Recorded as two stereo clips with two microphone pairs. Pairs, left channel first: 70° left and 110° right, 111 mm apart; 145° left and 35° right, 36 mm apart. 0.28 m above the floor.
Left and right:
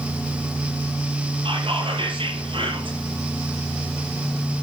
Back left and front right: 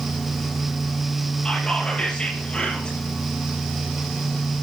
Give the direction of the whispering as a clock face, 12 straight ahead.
5 o'clock.